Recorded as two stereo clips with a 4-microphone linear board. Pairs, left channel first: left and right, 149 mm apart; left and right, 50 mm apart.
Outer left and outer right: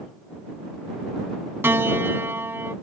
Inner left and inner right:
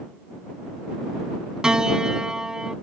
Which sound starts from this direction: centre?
A piano, at 1.6 s.